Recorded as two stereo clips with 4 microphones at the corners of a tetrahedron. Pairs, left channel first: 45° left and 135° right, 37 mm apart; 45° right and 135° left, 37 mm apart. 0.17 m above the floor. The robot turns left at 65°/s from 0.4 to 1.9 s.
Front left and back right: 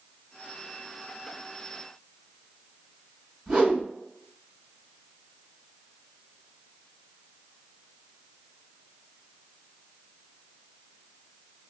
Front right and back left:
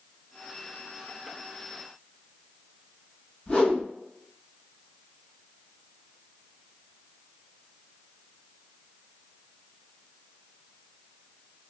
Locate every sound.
3.5 s a whoosh: 70° right, 1.6 m